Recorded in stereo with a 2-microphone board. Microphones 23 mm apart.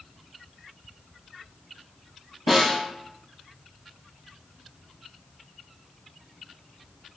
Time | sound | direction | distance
2.5 | a snare drum | 10° right (ahead or behind) | 1.0 m